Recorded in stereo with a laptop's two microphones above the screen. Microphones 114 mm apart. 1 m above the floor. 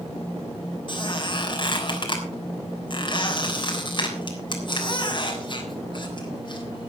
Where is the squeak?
45° left (ahead or behind), 3.5 m.